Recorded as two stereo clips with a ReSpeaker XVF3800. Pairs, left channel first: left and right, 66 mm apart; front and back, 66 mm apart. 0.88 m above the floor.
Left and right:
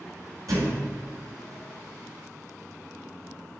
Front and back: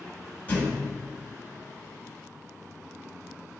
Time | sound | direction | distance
0.5 | a thud | 70° right | 4 m